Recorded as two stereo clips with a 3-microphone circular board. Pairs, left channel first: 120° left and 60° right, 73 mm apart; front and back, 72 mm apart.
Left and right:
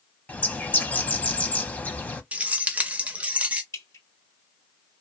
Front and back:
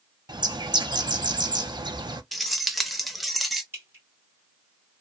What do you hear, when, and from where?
0.3 s a bird: 170° right, 0.5 m
2.3 s keys jangling: 90° right, 0.5 m
3.7 s dripping: 140° left, 1.8 m